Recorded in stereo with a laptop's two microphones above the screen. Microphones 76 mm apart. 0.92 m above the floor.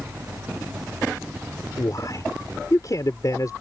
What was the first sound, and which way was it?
A fan, 25° right (ahead or behind).